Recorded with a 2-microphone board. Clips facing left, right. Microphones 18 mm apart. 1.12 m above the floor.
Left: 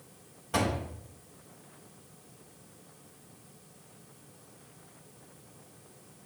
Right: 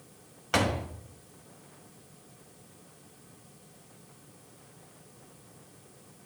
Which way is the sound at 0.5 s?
50° right (ahead or behind).